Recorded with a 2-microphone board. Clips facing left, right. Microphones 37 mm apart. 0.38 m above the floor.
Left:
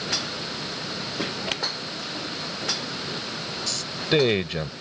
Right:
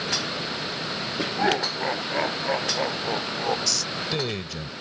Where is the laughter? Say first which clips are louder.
Right 6 dB; 70° right (ahead or behind); by 3.6 s 80° right.